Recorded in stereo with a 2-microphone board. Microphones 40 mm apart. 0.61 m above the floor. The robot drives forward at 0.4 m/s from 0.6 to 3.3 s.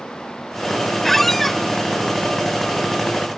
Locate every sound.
1.0 s a squeak: 10° left (ahead or behind)